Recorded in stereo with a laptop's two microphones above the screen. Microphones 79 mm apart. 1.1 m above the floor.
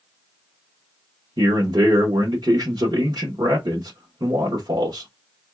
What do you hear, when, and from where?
1.4 s a man speaking: 65° right (ahead or behind), 1.0 m